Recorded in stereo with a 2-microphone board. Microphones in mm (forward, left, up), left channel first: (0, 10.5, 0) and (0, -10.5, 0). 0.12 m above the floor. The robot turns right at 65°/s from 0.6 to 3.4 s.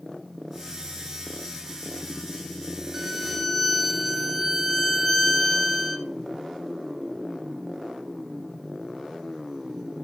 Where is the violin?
20° right (ahead or behind), 1.0 m; by 6.1 s 5° left (ahead or behind), 1.0 m.